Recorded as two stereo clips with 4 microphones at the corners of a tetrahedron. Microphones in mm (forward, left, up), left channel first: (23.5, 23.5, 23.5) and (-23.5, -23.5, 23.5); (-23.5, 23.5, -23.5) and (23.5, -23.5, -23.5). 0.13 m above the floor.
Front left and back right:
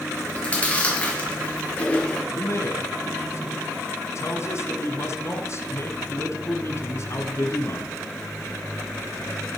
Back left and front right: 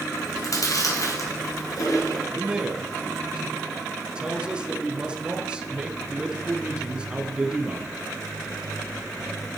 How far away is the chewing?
About 3 m.